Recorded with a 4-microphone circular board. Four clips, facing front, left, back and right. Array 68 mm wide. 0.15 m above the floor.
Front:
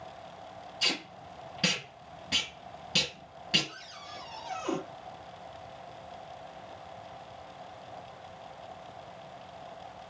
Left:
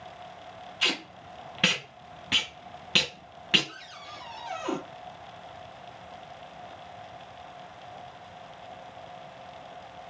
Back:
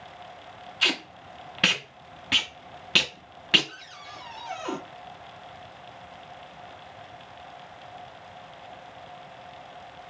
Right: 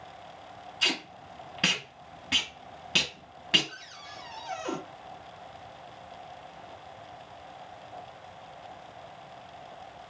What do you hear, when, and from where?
0.8 s tape being pulled: 165° left, 0.8 m
3.7 s a cupboard door: 135° left, 1.8 m